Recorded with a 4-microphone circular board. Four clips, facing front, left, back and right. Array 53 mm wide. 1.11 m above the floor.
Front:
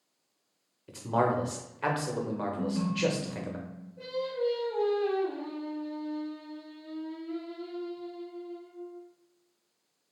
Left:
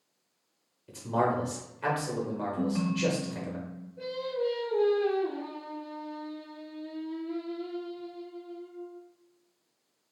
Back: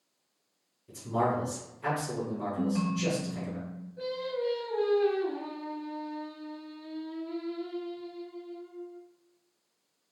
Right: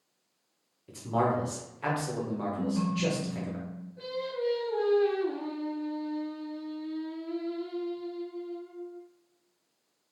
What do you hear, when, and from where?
0.9 s a man speaking: straight ahead, 0.8 m
2.6 s a ringtone: 130° left, 0.7 m
4.0 s singing: 155° right, 1.8 m